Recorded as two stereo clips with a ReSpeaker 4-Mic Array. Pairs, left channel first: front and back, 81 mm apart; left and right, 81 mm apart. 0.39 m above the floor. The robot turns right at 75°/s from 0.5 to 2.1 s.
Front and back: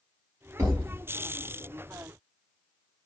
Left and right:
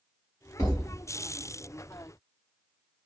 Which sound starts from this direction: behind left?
A thud, at 0.6 s.